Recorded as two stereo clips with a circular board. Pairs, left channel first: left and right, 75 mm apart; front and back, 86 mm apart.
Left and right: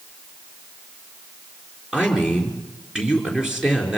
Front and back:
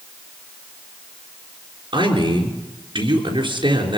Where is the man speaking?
170° right, 4.5 m.